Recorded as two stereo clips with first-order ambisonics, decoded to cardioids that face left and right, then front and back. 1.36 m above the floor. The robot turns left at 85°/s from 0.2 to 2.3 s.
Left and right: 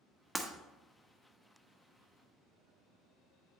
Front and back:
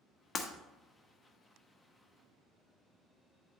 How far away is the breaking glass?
About 0.8 m.